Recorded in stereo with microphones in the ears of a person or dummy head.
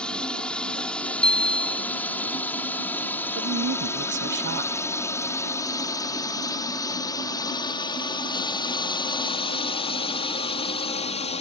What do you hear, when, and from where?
0.0 s a drone: 5° left (ahead or behind); by 11.4 s 30° left (ahead or behind)
1.2 s a bicycle bell: 5° left (ahead or behind)
3.4 s a woman speaking: 55° right (ahead or behind)